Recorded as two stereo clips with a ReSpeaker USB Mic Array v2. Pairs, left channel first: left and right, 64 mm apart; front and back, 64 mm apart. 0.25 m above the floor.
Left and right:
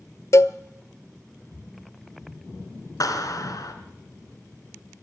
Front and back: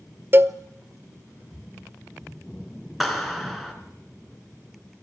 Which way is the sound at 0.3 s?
130° left.